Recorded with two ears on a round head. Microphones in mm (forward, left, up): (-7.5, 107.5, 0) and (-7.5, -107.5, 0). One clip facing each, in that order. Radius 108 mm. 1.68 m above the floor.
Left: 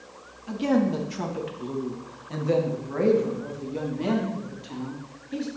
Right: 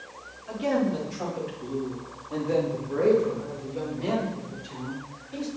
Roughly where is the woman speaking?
Left.